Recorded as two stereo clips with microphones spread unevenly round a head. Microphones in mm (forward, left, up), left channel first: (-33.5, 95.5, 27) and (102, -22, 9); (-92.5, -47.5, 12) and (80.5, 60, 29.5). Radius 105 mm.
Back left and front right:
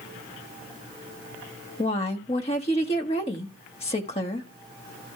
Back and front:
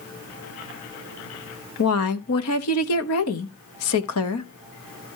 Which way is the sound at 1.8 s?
160° right.